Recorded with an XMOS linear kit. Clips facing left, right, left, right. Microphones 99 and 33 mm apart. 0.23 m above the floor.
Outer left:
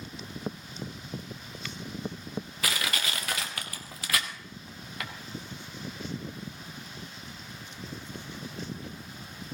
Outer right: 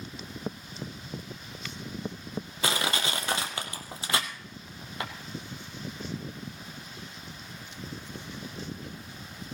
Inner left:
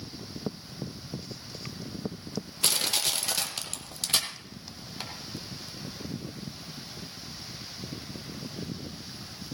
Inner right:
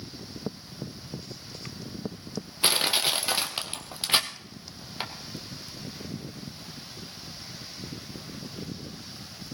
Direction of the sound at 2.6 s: 30° right (ahead or behind).